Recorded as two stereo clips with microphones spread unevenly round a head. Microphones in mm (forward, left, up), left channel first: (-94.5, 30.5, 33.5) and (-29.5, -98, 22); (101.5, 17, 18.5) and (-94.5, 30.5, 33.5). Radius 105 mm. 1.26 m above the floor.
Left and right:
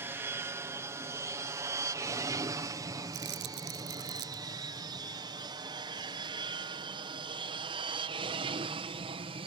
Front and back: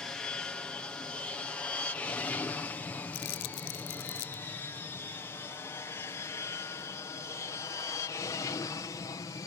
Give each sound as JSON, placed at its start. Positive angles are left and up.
{"t": 0.0, "sound": "an aircraft", "azimuth_deg": -75}
{"t": 3.1, "sound": "crumpling", "azimuth_deg": -35}